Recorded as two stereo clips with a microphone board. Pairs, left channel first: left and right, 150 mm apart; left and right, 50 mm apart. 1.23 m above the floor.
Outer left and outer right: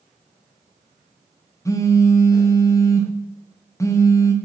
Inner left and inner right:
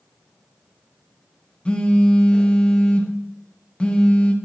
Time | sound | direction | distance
1.6 | a phone buzzing | 20° left (ahead or behind) | 0.6 m